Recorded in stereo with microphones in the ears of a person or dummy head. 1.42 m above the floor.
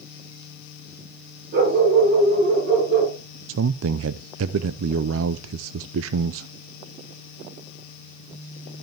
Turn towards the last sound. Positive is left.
turn(degrees=-75)  # may be behind; listen again after turning